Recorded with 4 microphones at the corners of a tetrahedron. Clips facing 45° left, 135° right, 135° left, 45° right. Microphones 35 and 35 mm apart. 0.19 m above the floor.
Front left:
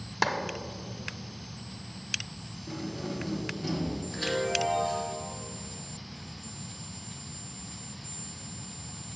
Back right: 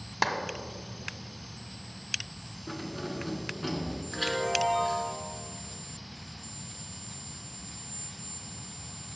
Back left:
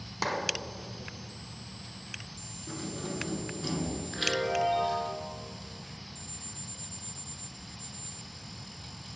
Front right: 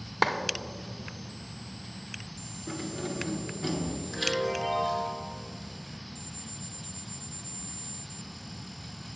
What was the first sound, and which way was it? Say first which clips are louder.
A clap: front left 1 dB, front right 6 dB; 50° right.